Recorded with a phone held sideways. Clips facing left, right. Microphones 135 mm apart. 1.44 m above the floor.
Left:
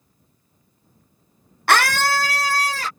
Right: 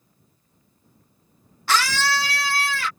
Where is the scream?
65° left (ahead or behind); by 2.9 s 40° left (ahead or behind).